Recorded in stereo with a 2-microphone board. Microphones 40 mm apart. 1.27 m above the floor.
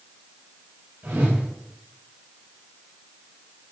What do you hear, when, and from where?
1.0 s a whoosh: 70° right (ahead or behind), 4.5 m